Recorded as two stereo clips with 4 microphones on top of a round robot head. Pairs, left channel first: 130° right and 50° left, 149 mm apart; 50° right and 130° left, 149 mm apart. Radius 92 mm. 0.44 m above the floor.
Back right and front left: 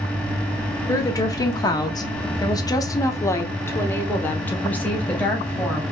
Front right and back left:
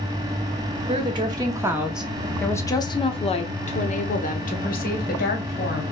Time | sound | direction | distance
0.9 | a woman speaking | 165° left | 1.1 m